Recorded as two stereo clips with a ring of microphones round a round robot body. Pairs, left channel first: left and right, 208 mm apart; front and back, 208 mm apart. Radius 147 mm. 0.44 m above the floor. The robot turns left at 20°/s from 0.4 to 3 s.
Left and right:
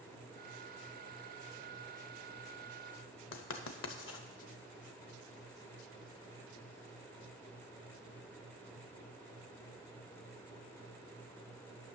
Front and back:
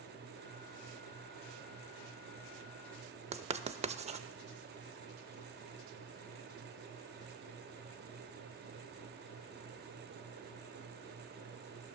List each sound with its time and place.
3.3 s writing: 120° left, 0.6 m